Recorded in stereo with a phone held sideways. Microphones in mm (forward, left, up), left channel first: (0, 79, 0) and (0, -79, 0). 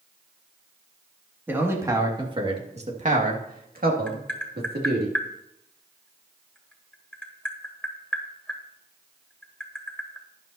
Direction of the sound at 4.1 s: 5° left (ahead or behind).